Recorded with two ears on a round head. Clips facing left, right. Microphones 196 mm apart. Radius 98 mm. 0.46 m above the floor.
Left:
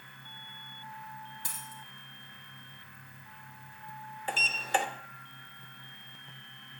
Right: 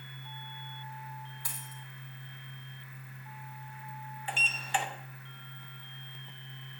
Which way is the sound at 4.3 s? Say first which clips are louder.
Left 3 dB; 40° left (ahead or behind).